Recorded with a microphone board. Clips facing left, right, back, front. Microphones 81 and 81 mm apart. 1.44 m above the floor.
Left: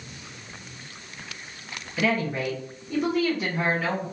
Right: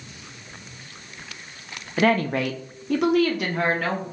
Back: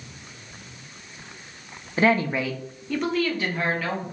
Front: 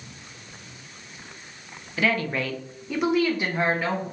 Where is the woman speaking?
125° right, 0.5 m; by 4.0 s 60° right, 1.2 m.